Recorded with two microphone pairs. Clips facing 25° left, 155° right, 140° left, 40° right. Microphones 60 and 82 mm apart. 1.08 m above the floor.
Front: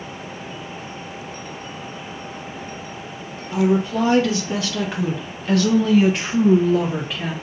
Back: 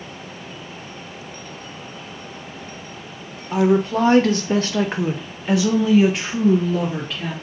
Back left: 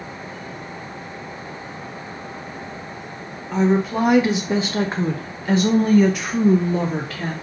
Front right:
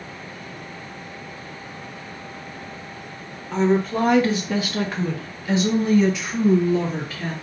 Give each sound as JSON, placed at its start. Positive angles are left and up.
{"t": 3.5, "sound": "a woman speaking", "azimuth_deg": -130, "distance_m": 1.1}